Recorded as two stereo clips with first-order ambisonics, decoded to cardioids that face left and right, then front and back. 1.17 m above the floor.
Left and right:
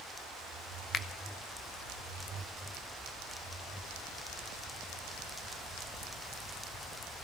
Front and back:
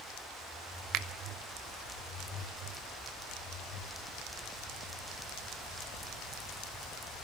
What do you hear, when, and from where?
0.9 s a finger snap: 155° left, 0.8 m